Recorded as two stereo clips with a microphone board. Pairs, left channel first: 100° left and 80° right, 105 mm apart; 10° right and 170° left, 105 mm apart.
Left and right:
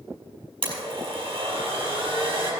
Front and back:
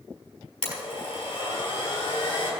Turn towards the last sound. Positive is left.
turn(degrees=-40)